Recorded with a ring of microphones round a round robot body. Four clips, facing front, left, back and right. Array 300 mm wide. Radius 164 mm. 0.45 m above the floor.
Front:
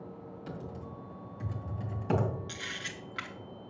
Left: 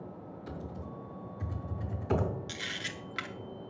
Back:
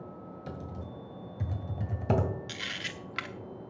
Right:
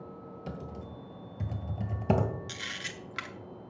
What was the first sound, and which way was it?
Typing on a keyboard, 130° right.